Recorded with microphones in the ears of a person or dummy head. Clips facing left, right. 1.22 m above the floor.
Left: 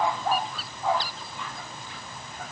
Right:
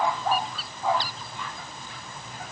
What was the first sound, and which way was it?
Only background noise.